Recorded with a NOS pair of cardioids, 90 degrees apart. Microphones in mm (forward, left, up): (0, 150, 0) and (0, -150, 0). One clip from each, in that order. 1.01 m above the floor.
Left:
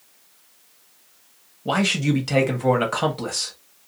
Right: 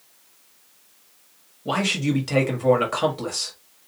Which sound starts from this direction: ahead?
A man speaking, at 1.6 s.